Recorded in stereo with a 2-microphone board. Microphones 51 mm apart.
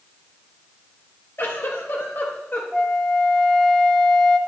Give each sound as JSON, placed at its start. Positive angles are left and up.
{"t": 1.4, "sound": "a giggle", "side_deg": 50, "distance_m": 1.8}
{"t": 2.7, "sound": "a flute", "side_deg": 10, "distance_m": 1.1}